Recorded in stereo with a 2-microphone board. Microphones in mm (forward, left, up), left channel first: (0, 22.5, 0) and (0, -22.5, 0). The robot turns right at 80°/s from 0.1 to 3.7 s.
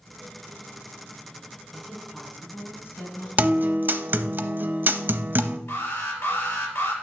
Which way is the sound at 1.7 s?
30° right.